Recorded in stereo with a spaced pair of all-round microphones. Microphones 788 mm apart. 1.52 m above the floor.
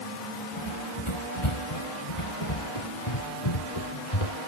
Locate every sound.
0.6 s running footsteps: 35° left (ahead or behind); by 4.4 s 45° left (ahead or behind)